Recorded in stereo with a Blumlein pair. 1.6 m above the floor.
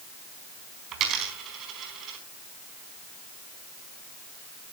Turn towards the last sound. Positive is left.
turn(degrees=-35)